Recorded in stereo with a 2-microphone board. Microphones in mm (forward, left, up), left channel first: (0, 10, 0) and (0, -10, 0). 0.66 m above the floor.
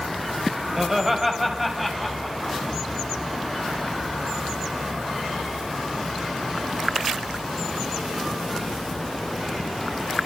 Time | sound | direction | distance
0.8 | laughter | 30° right (ahead or behind) | 3.5 m